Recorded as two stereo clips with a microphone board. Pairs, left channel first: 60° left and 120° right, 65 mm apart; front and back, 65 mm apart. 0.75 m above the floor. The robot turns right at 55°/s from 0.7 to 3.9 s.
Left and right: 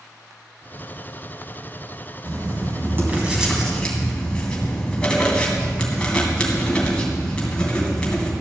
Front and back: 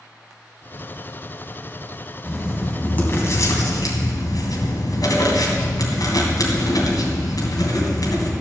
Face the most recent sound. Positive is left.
turn(degrees=-15)